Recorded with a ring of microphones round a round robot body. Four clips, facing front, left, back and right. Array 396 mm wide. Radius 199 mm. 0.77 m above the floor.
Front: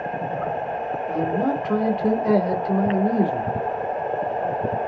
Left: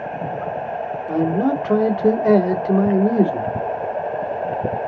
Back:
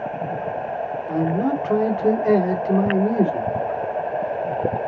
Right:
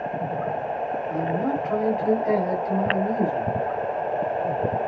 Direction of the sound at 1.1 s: 85° left.